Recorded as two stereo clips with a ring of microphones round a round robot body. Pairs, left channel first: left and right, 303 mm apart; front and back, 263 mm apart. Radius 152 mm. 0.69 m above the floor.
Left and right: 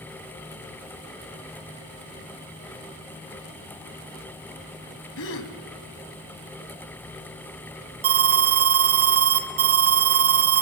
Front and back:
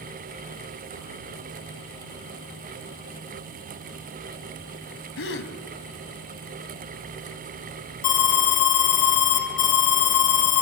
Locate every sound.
5.2 s a gasp: 40° left, 2.0 m
8.0 s an alarm: 40° right, 2 m